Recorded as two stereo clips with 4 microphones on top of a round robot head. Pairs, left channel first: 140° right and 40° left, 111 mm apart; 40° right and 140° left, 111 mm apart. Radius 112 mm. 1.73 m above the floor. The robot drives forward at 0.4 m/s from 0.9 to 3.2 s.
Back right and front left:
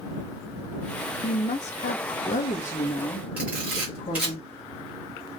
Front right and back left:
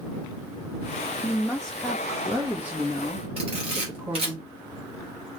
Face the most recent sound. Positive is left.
turn(degrees=115)